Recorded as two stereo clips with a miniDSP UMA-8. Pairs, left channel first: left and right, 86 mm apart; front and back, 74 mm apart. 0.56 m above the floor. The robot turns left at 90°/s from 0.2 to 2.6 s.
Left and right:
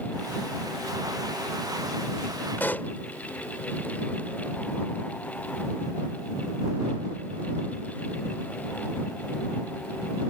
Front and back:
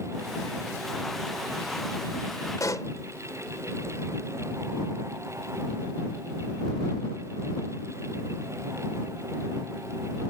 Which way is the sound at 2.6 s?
25° left.